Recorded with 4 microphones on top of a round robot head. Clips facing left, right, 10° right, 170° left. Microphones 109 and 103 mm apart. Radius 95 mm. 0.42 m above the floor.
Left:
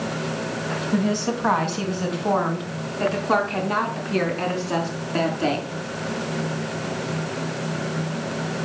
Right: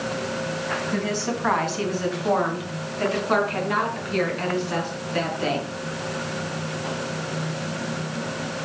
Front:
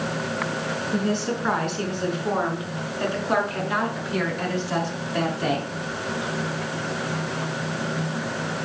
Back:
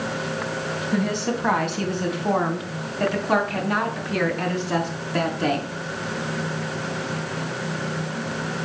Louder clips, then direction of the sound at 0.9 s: Left 6 dB, back 1 dB; 160° left.